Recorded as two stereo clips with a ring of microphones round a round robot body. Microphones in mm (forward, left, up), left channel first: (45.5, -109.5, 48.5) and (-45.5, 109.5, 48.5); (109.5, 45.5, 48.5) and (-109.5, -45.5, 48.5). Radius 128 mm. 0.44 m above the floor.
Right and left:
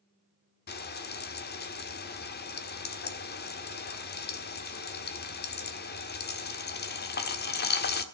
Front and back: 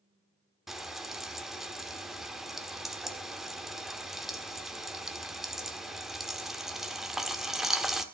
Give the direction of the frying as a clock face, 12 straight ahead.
2 o'clock.